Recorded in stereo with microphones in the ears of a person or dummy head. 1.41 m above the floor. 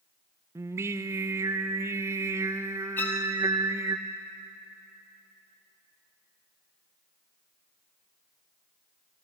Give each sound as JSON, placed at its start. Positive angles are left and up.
{"t": 0.6, "sound": "singing", "side_deg": -10, "distance_m": 0.7}
{"t": 3.0, "sound": "a violin", "side_deg": 15, "distance_m": 1.8}